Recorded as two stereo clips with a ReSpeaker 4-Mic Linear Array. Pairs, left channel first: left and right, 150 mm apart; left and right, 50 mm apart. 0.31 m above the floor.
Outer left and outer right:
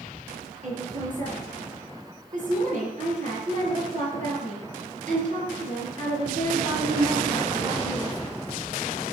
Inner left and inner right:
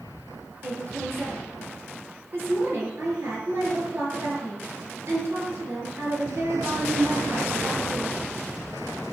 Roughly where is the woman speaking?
Right.